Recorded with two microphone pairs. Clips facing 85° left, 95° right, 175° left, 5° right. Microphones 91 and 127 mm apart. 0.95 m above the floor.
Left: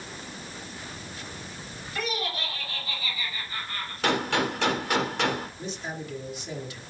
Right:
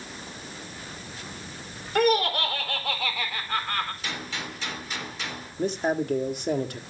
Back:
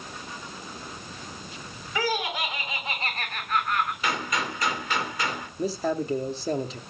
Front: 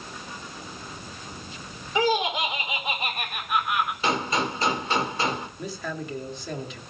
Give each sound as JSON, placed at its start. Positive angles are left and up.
{"t": 1.9, "sound": "laughter", "azimuth_deg": -70, "distance_m": 4.5}
{"t": 4.0, "sound": "a gunshot", "azimuth_deg": 55, "distance_m": 2.0}
{"t": 5.6, "sound": "a man speaking", "azimuth_deg": -130, "distance_m": 2.0}